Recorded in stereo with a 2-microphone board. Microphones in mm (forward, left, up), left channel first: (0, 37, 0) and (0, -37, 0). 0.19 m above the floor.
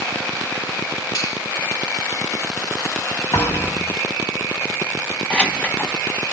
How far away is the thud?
About 2.0 m.